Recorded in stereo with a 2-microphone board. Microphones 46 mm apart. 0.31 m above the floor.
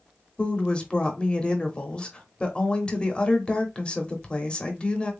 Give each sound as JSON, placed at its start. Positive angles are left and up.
{"t": 0.4, "sound": "a woman speaking", "side_deg": 25, "distance_m": 0.9}